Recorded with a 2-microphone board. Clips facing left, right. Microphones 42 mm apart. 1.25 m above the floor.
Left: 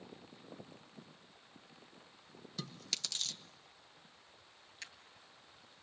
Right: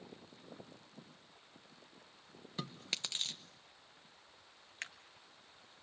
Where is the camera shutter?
55° right (ahead or behind), 1.3 m.